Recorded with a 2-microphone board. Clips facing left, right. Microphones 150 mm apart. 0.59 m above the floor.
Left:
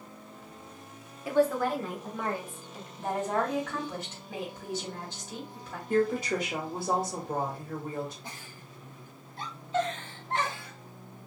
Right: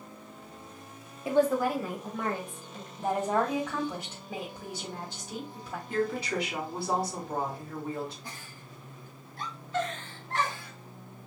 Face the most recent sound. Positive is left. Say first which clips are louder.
# even
turn(degrees=25)  # may be behind; listen again after turning